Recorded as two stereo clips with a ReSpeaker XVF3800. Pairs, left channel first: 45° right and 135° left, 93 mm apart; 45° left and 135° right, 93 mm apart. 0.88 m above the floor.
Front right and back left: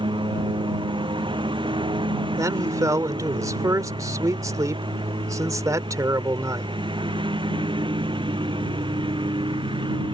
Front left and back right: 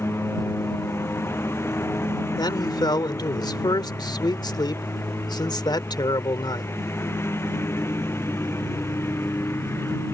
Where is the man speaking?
85° left.